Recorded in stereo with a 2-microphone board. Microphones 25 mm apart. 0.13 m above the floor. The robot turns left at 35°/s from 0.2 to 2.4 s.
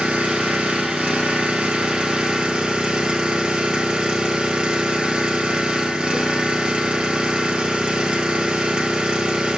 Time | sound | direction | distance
0.0 | an engine running | 60° right | 1.4 m